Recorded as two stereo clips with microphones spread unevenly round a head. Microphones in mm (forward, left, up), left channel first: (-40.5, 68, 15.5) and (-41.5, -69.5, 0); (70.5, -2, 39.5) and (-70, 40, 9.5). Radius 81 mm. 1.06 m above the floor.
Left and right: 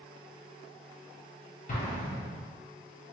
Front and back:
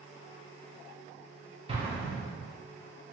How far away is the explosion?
About 0.9 m.